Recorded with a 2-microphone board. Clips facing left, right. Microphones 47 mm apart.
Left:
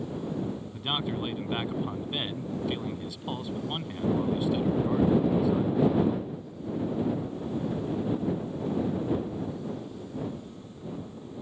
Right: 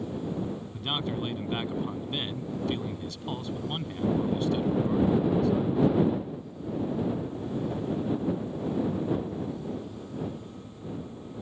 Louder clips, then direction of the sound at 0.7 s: Even; 10° left (ahead or behind).